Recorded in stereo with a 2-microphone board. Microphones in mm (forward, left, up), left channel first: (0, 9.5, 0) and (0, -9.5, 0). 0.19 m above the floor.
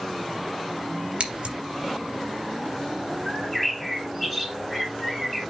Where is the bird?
5° left (ahead or behind), 4.5 m.